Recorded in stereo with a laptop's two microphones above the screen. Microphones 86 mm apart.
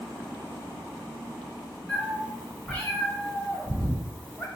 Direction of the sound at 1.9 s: 15° left (ahead or behind).